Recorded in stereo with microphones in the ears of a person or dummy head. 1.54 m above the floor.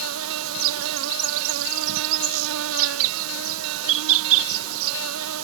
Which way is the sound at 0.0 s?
75° right (ahead or behind).